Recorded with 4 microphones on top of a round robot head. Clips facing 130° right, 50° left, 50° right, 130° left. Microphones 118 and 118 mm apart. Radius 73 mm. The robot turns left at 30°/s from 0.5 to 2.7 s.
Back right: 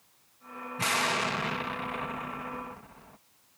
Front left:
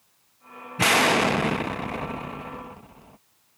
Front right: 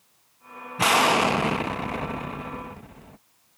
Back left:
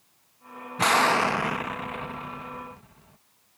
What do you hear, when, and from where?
0.8 s an explosion: 35° left; by 3.2 s 20° right